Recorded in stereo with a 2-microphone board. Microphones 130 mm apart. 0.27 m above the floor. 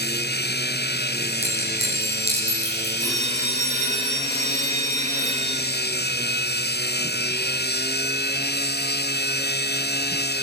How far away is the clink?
About 9.5 m.